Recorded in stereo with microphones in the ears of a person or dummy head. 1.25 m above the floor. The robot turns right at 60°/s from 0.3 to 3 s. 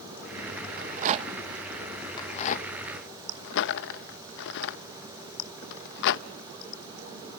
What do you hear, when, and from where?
0.8 s a rattle: 50° right (ahead or behind), 0.6 m; by 6.3 s 60° left (ahead or behind), 0.6 m